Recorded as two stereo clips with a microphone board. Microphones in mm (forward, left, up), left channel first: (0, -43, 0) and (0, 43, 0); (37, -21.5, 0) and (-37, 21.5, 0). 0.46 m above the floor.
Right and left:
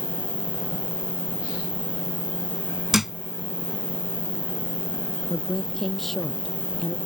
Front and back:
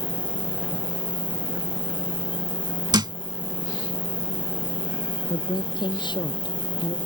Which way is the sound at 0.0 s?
20° left.